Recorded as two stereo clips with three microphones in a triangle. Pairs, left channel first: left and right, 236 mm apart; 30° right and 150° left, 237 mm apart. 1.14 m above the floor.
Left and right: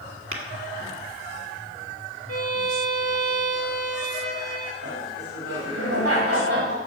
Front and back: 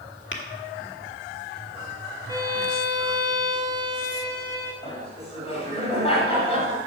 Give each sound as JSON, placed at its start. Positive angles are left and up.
{"t": 0.3, "sound": "tapping", "azimuth_deg": -65, "distance_m": 1.7}
{"t": 2.3, "sound": "a violin", "azimuth_deg": 75, "distance_m": 2.5}
{"t": 4.8, "sound": "laughter", "azimuth_deg": -95, "distance_m": 5.0}